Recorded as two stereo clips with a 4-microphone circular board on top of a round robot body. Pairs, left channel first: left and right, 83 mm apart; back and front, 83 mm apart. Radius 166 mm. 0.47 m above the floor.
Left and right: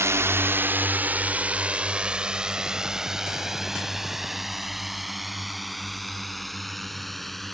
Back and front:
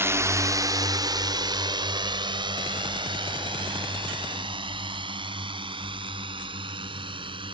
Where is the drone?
45° right; by 7.5 s 5° left.